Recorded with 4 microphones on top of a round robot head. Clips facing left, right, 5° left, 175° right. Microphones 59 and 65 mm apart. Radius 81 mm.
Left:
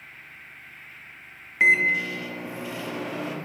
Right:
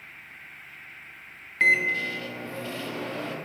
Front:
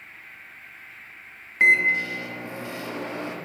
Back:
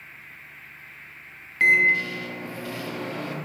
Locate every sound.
1.6 s a microwave: 30° left, 0.5 m